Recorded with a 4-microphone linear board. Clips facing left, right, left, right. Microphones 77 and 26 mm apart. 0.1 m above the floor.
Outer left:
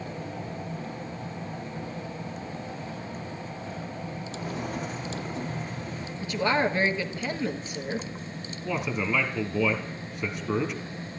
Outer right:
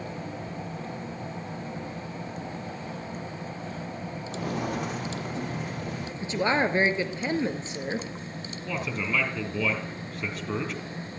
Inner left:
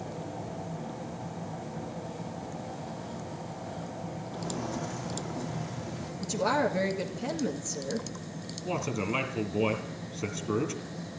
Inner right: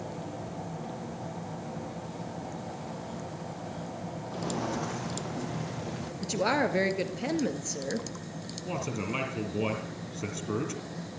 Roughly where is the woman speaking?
Right.